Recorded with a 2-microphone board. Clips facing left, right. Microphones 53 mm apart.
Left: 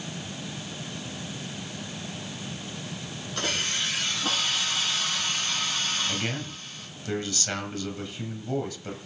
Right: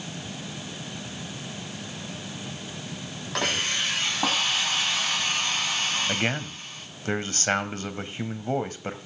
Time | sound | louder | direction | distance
3.4 | a hiss | right 3 dB | 85° right | 9.5 m
6.1 | a man speaking | right 4 dB | 35° right (ahead or behind) | 2 m